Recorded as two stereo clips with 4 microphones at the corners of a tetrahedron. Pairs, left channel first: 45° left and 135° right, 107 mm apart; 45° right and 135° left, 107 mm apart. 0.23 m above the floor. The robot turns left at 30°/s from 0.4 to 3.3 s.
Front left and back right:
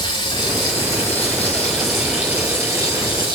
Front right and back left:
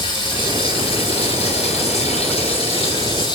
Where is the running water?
Straight ahead, 6.5 m; by 3.4 s 85° right, 6.5 m.